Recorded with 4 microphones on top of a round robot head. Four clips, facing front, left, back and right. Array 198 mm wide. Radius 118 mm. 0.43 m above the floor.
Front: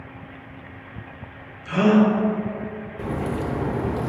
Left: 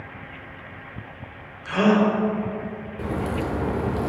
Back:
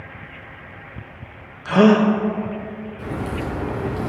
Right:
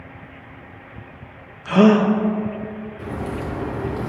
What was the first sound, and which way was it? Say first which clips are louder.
A gasp: right 5 dB, back 3 dB; 140° right.